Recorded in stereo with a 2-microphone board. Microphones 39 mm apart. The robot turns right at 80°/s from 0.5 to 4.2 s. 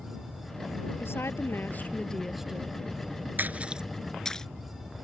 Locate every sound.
1.0 s a woman speaking: 75° left; by 2.8 s 145° right
3.4 s a splash: 50° right (ahead or behind); by 4.5 s 15° left (ahead or behind)